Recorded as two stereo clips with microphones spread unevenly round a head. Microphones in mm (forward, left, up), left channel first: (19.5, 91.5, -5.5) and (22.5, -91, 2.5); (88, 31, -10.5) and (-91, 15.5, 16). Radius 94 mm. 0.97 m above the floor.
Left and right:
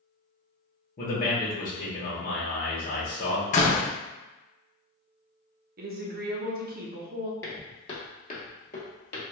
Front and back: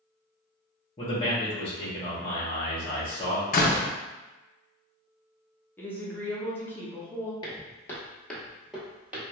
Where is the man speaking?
55° left, 0.9 m.